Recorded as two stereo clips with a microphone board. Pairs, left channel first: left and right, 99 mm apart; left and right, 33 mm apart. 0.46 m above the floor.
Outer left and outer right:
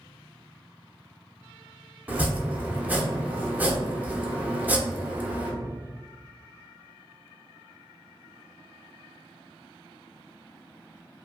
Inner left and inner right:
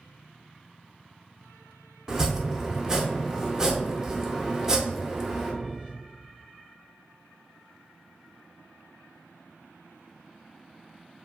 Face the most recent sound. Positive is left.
turn(degrees=-15)  # may be behind; listen again after turning